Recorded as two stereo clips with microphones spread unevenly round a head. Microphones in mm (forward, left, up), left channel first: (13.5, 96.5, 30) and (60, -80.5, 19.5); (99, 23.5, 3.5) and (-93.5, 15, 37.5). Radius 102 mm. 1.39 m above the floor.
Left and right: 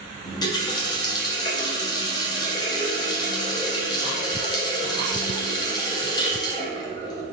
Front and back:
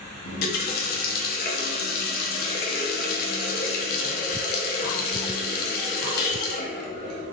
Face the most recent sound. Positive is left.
turn(degrees=45)